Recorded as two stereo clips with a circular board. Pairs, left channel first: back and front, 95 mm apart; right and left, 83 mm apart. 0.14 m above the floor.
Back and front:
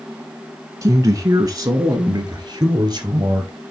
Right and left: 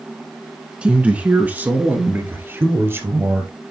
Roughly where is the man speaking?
Ahead left.